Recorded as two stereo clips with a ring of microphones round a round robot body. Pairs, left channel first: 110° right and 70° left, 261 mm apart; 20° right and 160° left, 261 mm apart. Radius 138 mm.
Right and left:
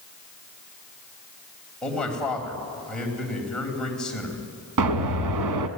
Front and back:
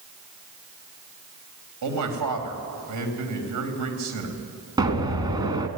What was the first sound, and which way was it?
A man speaking, 160° left.